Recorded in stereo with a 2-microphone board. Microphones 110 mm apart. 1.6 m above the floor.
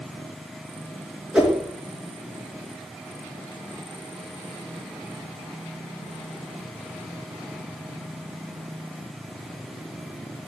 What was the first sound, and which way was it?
A whoosh, 10° right (ahead or behind).